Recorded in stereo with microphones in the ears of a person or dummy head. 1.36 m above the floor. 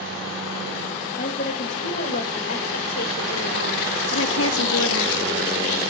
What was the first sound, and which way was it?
A woman speaking, 40° left (ahead or behind).